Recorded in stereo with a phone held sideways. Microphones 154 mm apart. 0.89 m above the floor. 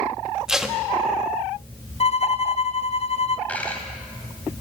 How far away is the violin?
About 0.9 m.